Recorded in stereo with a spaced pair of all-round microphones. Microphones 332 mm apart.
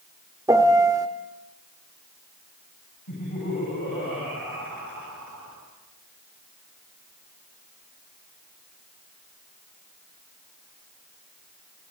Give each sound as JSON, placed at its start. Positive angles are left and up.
{"t": 0.5, "sound": "a piano", "side_deg": -10, "distance_m": 1.2}
{"t": 3.1, "sound": "laughter", "side_deg": 80, "distance_m": 10.0}